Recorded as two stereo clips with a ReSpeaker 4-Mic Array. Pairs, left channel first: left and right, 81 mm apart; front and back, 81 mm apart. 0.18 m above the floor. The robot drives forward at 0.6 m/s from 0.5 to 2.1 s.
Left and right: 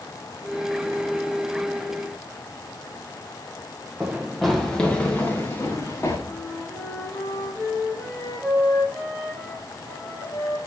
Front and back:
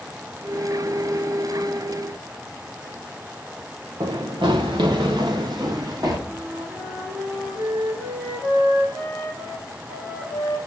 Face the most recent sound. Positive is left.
turn(degrees=150)